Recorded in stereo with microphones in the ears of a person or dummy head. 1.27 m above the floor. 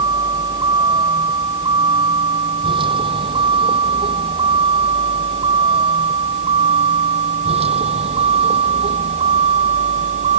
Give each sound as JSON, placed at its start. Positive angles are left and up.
{"t": 0.0, "sound": "a vehicle", "side_deg": -25}